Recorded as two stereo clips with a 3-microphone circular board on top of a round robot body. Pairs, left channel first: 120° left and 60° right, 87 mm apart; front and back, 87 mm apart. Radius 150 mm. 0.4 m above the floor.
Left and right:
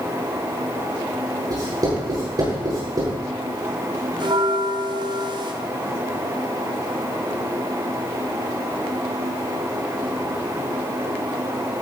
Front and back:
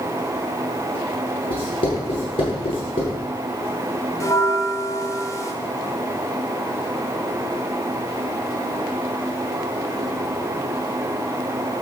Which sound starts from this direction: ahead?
Writing, at 1.5 s.